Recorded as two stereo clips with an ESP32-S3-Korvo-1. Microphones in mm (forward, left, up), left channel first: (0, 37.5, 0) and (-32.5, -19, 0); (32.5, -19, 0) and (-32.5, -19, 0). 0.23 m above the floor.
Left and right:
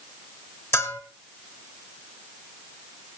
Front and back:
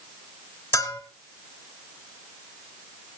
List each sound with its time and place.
0.7 s a bell: 20° left, 2 m